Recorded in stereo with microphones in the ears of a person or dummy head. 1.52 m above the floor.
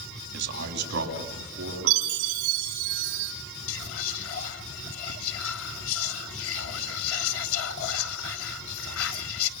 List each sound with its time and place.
0.3 s a man speaking: 55° right (ahead or behind), 3.5 m; by 2.9 s 60° right (ahead or behind), 5.5 m
1.9 s a chime: 65° right (ahead or behind), 2 m
3.7 s whispering: 80° left, 1.9 m